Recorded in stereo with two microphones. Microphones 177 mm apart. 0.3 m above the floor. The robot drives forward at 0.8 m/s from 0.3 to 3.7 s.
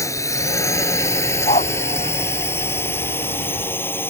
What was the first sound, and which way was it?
A drone, 15° left (ahead or behind).